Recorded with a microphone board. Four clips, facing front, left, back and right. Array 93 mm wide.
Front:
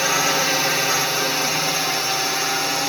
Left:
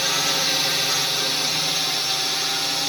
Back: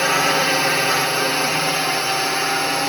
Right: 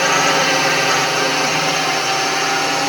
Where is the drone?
105° right.